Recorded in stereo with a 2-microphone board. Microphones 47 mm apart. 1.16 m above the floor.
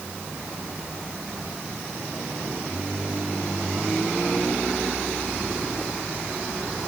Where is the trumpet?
I don't hear a trumpet.